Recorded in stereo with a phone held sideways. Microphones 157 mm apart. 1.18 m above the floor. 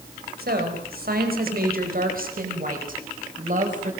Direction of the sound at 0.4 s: 80° right.